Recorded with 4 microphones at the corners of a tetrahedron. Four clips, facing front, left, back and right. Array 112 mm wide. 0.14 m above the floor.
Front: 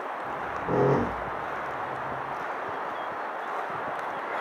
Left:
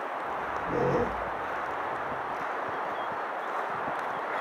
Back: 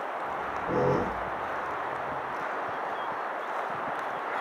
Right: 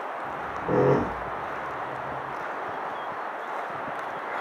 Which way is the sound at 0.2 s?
70° right.